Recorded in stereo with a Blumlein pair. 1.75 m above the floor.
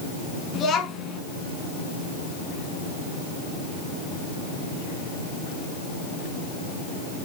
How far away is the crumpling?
I don't hear crumpling.